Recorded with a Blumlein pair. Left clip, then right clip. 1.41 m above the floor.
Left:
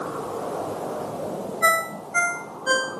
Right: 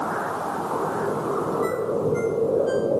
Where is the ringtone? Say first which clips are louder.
Left 2 dB; 50° left.